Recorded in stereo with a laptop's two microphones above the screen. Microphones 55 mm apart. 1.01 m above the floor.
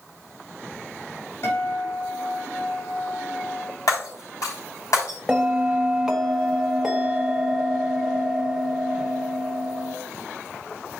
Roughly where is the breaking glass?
Left.